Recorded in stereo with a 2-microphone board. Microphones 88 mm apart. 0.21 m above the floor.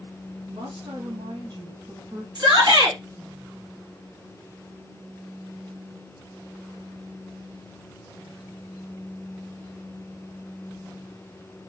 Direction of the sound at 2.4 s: 45° right (ahead or behind).